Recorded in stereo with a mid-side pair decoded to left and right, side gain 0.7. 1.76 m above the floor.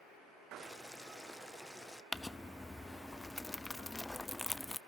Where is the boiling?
5° left, 0.8 m.